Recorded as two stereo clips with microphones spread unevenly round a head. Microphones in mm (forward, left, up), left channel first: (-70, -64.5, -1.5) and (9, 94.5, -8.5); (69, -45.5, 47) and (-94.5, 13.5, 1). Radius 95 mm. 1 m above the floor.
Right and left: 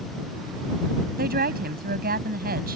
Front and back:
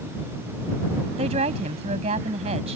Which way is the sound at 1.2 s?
100° left.